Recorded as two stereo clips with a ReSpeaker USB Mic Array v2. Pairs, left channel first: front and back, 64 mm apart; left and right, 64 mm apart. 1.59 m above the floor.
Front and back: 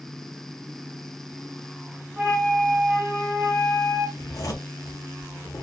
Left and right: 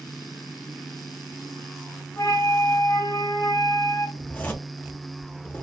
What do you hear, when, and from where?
2.2 s a flute: 115° left, 0.9 m
4.2 s a zipper: 20° left, 0.8 m